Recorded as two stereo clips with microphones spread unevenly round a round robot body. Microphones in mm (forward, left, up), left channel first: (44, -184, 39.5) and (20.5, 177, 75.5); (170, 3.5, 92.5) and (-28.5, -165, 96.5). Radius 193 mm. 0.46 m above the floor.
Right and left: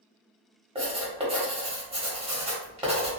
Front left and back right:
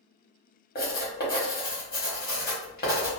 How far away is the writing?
About 1.1 m.